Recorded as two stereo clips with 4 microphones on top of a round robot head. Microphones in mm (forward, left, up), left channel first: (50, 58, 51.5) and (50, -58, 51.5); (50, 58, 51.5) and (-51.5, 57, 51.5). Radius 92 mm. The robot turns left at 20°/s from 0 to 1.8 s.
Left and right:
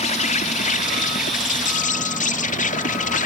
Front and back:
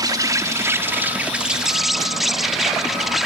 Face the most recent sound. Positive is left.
turn(degrees=95)